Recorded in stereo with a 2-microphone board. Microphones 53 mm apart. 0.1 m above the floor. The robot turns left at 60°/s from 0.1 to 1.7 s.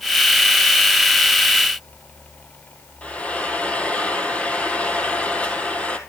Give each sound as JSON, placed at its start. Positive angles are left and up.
{"t": 3.0, "sound": "frying", "side_deg": 25, "distance_m": 1.9}